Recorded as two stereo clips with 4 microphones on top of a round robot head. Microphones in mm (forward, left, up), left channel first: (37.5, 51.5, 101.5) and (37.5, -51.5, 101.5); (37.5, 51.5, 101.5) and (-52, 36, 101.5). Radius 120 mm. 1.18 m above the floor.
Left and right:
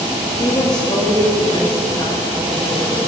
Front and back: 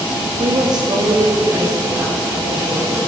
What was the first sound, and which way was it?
A woman speaking, 150° left.